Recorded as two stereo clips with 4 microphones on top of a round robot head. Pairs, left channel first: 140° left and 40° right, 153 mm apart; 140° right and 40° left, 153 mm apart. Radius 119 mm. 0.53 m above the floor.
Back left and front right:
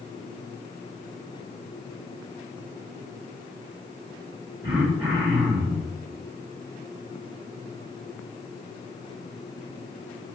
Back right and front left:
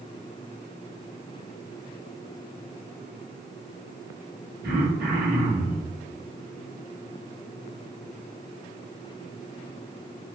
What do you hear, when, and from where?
4.6 s throat clearing: 30° left, 4.5 m